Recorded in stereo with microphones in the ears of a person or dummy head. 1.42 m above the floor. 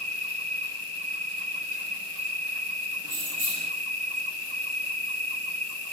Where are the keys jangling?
40° right (ahead or behind), 0.8 m.